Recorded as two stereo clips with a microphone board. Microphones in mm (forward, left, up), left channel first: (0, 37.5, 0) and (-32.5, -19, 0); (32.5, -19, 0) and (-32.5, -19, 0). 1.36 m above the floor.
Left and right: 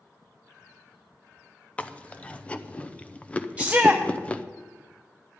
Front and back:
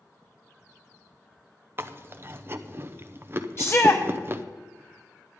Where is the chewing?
130° left, 0.6 m.